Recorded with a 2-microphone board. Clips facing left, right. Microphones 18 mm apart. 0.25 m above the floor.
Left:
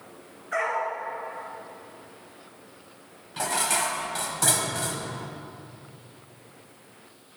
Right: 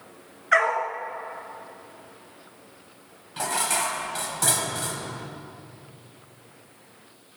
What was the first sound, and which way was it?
A dog barking, 75° right (ahead or behind).